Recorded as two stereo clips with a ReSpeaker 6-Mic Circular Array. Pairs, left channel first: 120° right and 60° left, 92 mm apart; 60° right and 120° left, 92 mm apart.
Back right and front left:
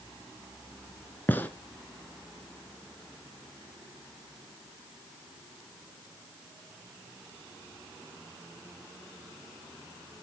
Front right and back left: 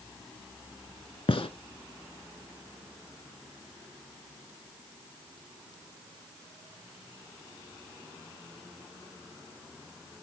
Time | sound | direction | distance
1.3 | a gunshot | 50° right | 0.8 m